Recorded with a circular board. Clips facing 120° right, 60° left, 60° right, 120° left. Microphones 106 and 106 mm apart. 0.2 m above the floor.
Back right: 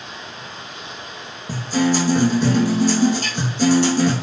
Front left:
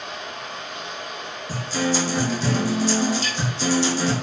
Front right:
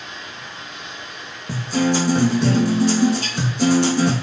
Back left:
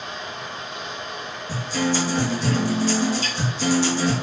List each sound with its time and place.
0.0 s running water: 90° left, 2.5 m
1.5 s a guitar: 85° right, 3 m